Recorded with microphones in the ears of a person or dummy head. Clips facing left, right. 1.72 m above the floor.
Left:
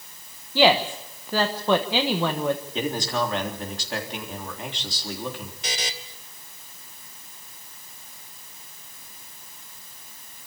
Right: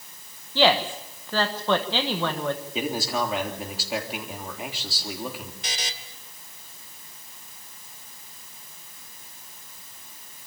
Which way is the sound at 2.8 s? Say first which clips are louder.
Left 1 dB; 10° right (ahead or behind).